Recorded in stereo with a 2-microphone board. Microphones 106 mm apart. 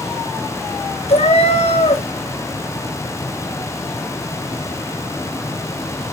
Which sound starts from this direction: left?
A cat meowing, at 1.1 s.